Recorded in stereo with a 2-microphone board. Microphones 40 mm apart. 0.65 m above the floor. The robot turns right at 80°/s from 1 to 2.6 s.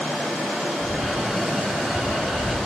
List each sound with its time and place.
0.8 s footsteps: 25° left (ahead or behind), 5 m; by 2.6 s 20° left (ahead or behind), 4.5 m